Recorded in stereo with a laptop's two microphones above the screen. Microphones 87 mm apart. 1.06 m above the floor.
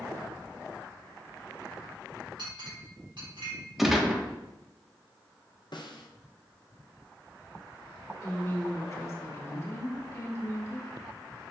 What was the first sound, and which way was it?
A clink, 75° right (ahead or behind).